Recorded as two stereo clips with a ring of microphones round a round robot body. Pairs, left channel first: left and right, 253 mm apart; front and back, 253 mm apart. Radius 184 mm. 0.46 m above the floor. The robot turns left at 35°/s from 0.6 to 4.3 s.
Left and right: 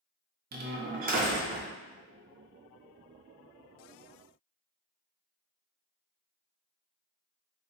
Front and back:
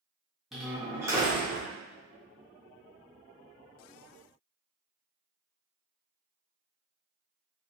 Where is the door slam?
95° right, 0.5 m; by 1.7 s 130° right, 0.5 m.